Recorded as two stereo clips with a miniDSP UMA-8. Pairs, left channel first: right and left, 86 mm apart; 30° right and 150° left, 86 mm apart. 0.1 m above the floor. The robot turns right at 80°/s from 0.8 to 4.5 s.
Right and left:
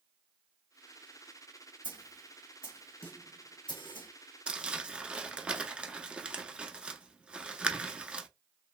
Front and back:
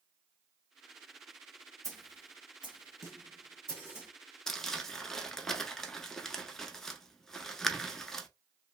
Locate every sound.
1.8 s a snare drum: 100° left, 1.6 m; by 4.1 s 80° right, 1.6 m
4.5 s crumpling: 45° left, 0.6 m